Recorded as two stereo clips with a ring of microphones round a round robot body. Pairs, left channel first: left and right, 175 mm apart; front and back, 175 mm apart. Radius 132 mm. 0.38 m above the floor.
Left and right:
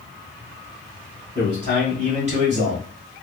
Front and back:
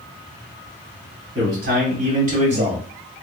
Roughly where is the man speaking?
Behind right.